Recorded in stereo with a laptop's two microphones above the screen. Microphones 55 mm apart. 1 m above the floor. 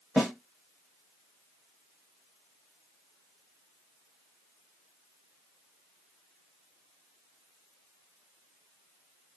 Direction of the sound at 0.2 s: 5° right (ahead or behind).